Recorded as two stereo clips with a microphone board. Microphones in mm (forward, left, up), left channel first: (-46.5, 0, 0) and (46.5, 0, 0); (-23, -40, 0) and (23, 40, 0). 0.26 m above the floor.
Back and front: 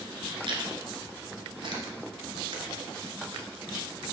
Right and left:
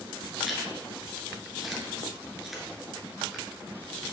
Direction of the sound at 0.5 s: 30° right.